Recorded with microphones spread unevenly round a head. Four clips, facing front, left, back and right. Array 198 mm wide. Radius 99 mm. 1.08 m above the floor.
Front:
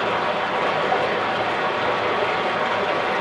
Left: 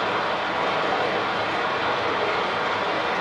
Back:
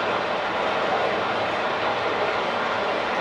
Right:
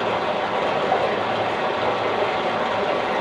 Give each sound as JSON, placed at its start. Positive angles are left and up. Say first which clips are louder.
{"t": 0.0, "sound": "running water", "louder": "right 2 dB, front 2 dB", "azimuth_deg": -75, "distance_m": 0.7}